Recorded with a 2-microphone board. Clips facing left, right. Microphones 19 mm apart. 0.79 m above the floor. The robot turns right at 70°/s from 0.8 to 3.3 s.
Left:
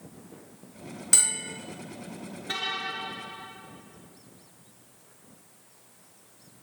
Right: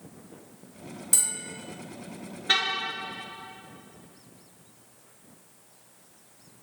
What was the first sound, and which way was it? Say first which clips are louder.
A bell: left 3 dB; 120° left.